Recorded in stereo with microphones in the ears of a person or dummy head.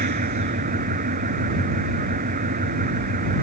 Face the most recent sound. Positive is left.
turn(degrees=-40)  # may be behind; listen again after turning